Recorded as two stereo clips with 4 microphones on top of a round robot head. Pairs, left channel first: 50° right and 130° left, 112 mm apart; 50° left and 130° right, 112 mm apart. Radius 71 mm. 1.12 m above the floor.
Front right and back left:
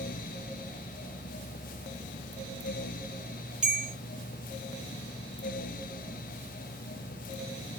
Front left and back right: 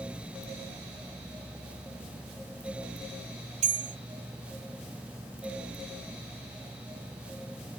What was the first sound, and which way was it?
A bell, 150° right.